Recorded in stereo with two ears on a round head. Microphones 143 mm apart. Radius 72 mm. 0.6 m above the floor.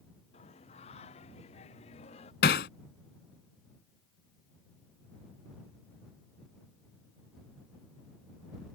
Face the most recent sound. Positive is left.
turn(degrees=75)  # may be behind; listen again after turning